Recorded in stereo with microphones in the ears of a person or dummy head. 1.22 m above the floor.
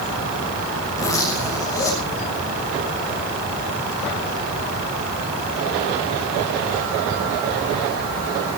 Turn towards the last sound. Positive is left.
turn(degrees=20)  # may be behind; listen again after turning